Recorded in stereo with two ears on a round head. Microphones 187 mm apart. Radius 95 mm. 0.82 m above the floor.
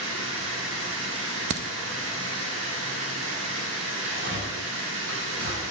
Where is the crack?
55° right (ahead or behind), 0.5 m.